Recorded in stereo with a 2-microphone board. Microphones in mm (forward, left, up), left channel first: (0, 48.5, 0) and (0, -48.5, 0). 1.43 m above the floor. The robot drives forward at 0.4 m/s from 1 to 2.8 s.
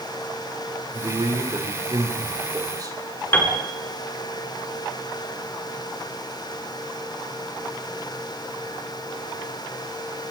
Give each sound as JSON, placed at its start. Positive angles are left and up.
{"t": 0.9, "sound": "a man speaking", "side_deg": -45, "distance_m": 4.0}
{"t": 3.3, "sound": "a piano", "side_deg": 20, "distance_m": 5.5}